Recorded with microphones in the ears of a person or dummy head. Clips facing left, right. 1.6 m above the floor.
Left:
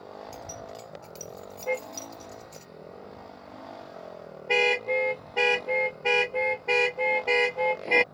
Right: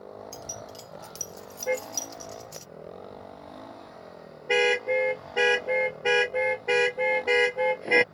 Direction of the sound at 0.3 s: 20° right (ahead or behind).